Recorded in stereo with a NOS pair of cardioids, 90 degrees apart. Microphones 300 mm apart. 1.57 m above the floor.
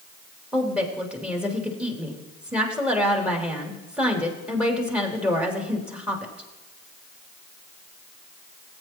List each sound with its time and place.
0.5 s a woman speaking: 5° right, 3 m